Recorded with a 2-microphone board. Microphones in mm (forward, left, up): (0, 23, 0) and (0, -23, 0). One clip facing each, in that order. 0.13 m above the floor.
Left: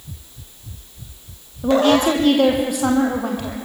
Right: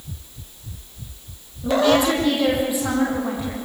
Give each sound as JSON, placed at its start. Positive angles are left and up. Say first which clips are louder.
{"t": 1.6, "sound": "a woman speaking", "louder": "left 2 dB", "side_deg": 50, "distance_m": 4.5}